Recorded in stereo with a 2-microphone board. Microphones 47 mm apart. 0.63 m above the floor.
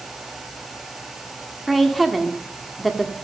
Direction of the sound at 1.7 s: Centre (ahead or behind).